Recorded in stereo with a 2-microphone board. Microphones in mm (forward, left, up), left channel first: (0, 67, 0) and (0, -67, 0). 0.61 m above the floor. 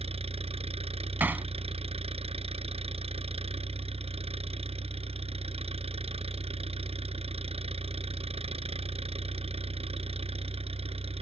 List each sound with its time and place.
0.0 s an engine running: 50° right (ahead or behind)
1.2 s hammering: 15° right (ahead or behind)